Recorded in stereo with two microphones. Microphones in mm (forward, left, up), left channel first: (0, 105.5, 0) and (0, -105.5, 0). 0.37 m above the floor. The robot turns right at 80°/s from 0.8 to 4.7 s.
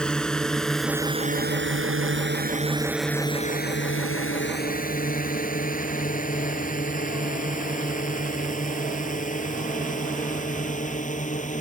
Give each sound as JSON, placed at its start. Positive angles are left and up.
{"t": 0.0, "sound": "a drone", "side_deg": 5}